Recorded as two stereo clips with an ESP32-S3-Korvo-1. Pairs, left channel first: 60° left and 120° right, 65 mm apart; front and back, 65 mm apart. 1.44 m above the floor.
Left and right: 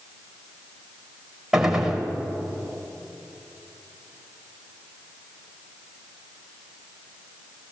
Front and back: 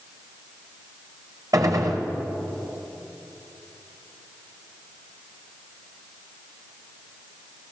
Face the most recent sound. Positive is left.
turn(degrees=160)